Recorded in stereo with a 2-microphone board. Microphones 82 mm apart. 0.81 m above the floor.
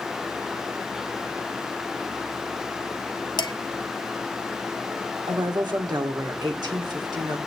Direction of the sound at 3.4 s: 60° left (ahead or behind).